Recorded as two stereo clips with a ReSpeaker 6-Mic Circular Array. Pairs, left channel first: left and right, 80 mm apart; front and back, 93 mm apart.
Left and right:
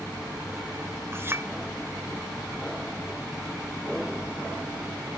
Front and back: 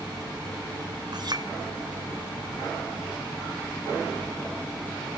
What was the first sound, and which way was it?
A clink, 145° right.